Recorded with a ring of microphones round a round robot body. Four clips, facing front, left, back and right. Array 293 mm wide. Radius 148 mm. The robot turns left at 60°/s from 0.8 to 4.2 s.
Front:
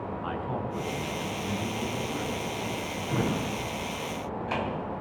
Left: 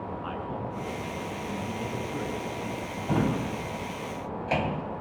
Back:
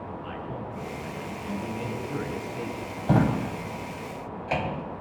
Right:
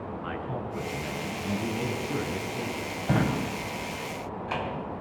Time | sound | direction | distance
0.2 | a man speaking | 25° right | 6 m
3.0 | a drawer | 155° right | 2.5 m